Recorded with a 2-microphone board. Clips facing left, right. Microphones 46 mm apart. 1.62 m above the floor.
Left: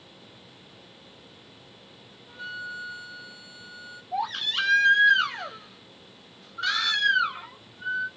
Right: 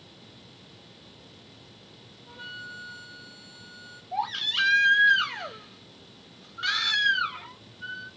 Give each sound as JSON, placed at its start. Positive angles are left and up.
{"t": 2.3, "sound": "a flute", "side_deg": -15, "distance_m": 2.5}
{"t": 4.1, "sound": "a baby crying", "side_deg": -20, "distance_m": 2.5}